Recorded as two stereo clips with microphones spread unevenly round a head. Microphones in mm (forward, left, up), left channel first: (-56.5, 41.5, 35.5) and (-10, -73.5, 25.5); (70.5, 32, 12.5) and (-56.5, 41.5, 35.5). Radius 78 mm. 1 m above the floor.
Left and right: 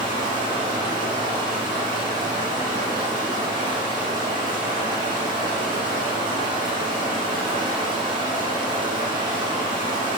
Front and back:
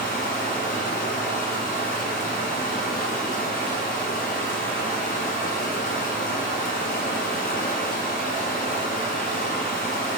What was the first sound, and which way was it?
Running water, 5° right.